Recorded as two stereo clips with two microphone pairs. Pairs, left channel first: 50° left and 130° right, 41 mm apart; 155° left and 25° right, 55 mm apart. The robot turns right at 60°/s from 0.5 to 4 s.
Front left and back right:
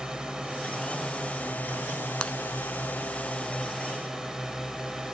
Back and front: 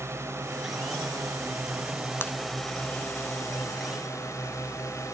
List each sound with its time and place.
0.0 s a drone: 55° right; by 5.2 s 155° left
2.2 s breaking glass: 115° left; by 2.3 s 120° left